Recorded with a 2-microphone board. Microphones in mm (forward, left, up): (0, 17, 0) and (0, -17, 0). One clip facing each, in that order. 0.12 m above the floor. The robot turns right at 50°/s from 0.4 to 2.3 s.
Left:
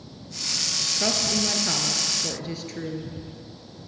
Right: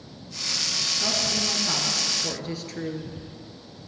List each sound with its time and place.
1.0 s a woman speaking: 110° left, 1.7 m; by 3.1 s straight behind, 1.7 m